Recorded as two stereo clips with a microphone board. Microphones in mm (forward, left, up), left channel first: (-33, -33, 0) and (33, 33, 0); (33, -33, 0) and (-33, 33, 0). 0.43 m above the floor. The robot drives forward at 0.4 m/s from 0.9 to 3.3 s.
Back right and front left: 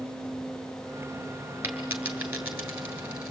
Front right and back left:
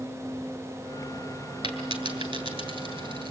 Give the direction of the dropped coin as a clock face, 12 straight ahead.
8 o'clock.